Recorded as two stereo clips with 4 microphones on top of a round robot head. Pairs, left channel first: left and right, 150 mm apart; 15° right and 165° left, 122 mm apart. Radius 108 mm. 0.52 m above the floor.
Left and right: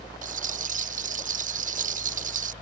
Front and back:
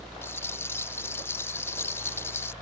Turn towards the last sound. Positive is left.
turn(degrees=-80)